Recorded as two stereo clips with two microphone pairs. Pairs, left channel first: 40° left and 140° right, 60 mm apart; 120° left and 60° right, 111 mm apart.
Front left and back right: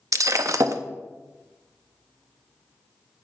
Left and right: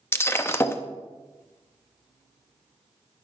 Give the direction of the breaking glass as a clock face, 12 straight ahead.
6 o'clock.